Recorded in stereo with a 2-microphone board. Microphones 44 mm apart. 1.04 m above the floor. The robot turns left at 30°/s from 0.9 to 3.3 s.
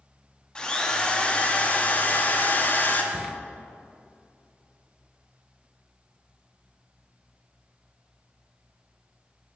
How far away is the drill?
About 0.5 m.